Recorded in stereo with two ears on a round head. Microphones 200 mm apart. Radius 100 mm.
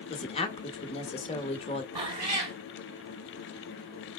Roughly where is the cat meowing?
Right.